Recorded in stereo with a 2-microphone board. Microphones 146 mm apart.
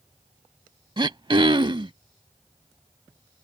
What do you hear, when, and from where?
1.0 s throat clearing: 35° right (ahead or behind)